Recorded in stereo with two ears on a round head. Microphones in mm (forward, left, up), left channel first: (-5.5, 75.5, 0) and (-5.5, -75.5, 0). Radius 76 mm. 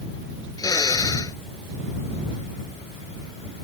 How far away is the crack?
I don't hear a crack.